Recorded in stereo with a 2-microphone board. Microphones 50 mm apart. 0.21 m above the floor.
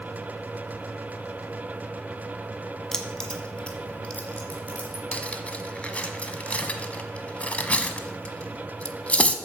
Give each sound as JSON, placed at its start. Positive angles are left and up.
{"t": 2.9, "sound": "keys jangling", "side_deg": 10, "distance_m": 1.2}
{"t": 5.1, "sound": "cutlery clinking", "side_deg": 25, "distance_m": 1.0}